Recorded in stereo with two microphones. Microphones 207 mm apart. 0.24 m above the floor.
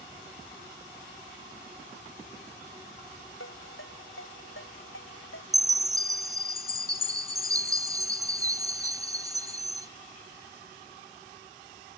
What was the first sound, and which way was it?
A ringtone, 85° left.